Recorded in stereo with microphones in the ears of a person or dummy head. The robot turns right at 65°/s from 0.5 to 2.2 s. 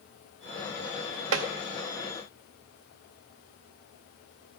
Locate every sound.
1.3 s tapping: 85° right, 1.0 m; by 1.5 s 80° right, 1.0 m